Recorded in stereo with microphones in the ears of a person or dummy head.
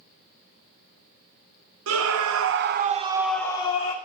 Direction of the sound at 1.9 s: 80° right.